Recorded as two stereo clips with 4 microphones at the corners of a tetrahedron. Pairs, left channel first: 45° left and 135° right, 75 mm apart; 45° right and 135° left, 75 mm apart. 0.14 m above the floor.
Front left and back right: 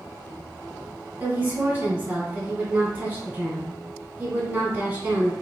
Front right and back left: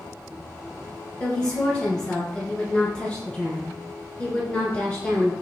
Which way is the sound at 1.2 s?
105° right.